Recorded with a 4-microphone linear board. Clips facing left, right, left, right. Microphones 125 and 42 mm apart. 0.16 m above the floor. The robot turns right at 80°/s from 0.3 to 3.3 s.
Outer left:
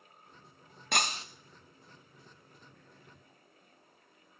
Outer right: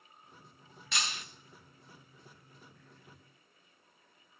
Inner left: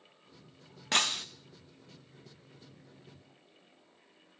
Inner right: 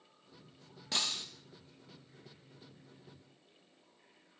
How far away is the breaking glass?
About 1.1 m.